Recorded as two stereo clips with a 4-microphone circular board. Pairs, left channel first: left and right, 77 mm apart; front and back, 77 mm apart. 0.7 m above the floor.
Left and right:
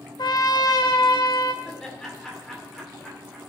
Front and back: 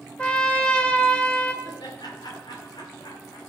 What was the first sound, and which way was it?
A trumpet, 75° left.